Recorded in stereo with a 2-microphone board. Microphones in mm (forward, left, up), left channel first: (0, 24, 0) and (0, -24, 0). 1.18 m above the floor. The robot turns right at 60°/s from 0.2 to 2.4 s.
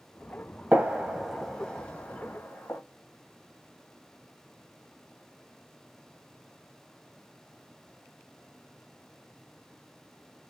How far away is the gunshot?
About 1.1 m.